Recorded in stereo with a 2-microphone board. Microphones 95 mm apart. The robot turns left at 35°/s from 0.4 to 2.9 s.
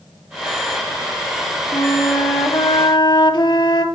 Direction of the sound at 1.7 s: 125° left.